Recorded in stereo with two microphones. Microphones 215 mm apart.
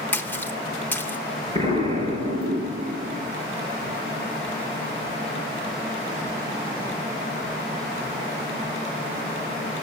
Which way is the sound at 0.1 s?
10° left (ahead or behind).